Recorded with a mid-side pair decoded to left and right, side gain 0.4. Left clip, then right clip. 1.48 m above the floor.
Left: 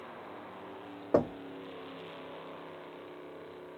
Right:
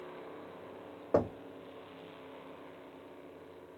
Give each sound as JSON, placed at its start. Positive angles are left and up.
{"t": 1.1, "sound": "knocking", "azimuth_deg": 20, "distance_m": 0.7}